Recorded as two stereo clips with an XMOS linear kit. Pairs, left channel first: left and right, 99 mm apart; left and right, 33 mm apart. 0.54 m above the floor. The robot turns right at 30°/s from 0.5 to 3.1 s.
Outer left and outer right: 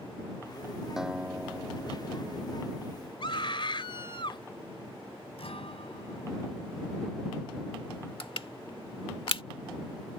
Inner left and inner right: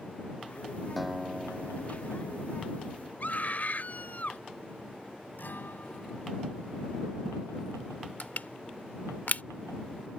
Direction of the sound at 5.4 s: 80° left.